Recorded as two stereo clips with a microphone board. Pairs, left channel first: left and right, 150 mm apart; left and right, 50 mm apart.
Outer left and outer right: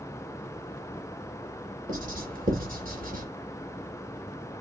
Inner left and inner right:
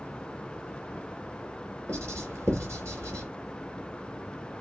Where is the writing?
65° right (ahead or behind), 4.5 m.